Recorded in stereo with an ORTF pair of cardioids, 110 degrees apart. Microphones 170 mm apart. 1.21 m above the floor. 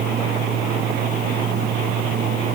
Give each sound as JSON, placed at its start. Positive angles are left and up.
{"t": 0.0, "sound": "a fan", "azimuth_deg": -60}